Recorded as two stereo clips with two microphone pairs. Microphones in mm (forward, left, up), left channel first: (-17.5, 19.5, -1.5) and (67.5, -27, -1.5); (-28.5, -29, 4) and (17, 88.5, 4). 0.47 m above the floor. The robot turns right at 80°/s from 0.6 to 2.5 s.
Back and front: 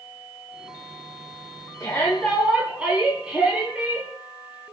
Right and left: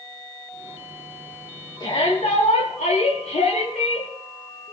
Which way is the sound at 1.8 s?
165° right.